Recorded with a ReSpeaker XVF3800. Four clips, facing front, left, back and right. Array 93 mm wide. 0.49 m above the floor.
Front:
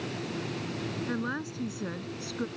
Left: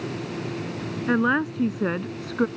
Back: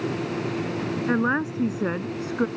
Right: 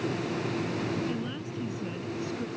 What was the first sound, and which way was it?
A woman speaking, 120° left.